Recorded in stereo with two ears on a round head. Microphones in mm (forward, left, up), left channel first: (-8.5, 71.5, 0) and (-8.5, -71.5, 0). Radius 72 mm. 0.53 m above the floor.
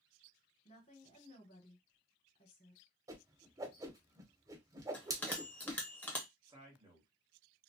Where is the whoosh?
20° right (ahead or behind), 0.5 m.